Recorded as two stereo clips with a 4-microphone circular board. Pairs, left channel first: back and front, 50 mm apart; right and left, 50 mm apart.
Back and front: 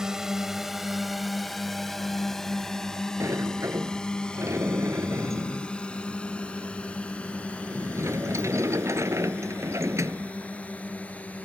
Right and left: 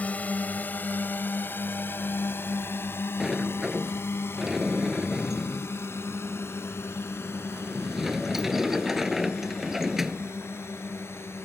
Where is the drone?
65° right; by 11.4 s 120° right.